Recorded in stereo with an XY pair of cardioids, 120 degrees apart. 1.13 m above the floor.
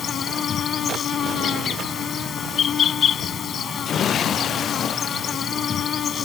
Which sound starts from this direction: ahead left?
An insect, at 0.0 s.